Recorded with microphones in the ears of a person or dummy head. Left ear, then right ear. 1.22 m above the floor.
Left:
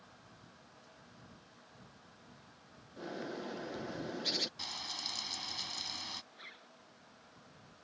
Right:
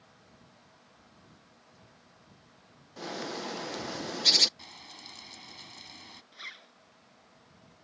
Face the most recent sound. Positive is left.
turn(degrees=-35)  # may be behind; listen again after turning